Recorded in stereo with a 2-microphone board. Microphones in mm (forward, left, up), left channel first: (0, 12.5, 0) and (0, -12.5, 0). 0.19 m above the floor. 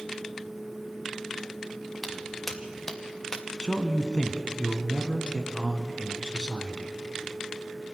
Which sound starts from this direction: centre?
Footsteps, at 2.0 s.